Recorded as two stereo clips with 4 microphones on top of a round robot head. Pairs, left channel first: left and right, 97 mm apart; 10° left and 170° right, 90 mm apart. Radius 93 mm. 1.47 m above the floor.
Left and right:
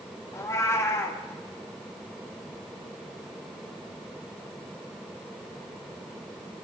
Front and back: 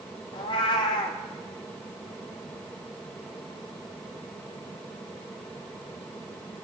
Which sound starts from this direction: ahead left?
A cat meowing, at 0.3 s.